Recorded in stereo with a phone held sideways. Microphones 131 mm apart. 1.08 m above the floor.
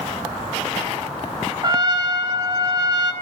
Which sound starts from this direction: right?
A trumpet, at 1.6 s.